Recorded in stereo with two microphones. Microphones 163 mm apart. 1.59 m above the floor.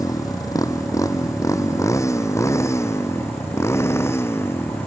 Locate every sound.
0.0 s a motorcycle: 20° left (ahead or behind); by 4.9 s 15° left (ahead or behind)